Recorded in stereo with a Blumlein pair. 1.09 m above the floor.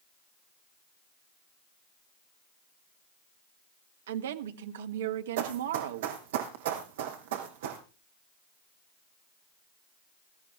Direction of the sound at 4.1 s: 60° right.